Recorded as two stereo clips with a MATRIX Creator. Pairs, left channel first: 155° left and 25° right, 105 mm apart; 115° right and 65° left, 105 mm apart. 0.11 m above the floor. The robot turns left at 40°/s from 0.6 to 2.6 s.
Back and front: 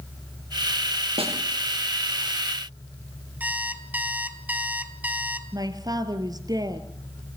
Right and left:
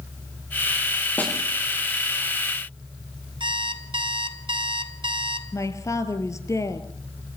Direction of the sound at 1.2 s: 40° right.